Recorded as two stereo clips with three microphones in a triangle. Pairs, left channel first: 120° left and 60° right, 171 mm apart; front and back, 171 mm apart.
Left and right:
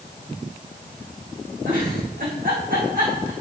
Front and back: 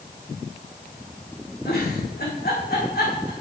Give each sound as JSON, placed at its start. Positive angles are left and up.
{"t": 1.6, "sound": "a giggle", "azimuth_deg": -25, "distance_m": 5.0}